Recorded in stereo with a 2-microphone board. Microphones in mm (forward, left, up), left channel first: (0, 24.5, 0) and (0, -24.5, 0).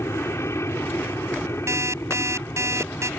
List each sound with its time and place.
0.0 s an aircraft: 70° left (ahead or behind)
1.7 s an alarm clock: 80° right